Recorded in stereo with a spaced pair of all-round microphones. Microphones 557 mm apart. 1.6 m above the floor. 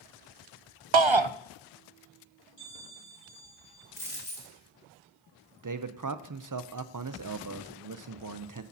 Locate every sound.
0.9 s a shout: 60° right (ahead or behind), 0.5 m
2.6 s a bell: 35° left (ahead or behind), 6.5 m
4.0 s a dropped coin: 70° left (ahead or behind), 3.5 m
5.6 s a man speaking: 35° right (ahead or behind), 0.7 m